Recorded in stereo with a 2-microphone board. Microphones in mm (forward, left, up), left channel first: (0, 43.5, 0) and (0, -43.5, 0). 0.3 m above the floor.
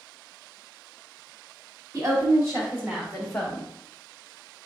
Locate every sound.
1.9 s a woman speaking: 40° right (ahead or behind), 2.5 m; by 3.7 s 20° left (ahead or behind), 1.5 m